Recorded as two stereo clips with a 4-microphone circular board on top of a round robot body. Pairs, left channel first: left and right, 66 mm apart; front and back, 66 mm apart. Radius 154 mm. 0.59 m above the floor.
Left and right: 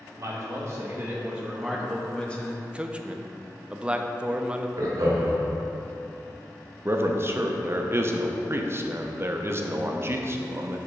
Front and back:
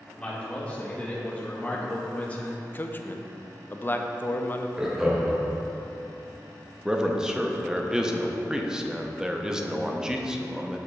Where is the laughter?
100° right, 2.0 m.